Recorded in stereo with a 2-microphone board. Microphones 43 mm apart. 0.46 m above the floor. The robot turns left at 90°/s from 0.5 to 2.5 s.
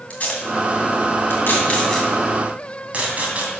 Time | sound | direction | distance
0.1 | tape being pulled | 35° left (ahead or behind) | 2.5 m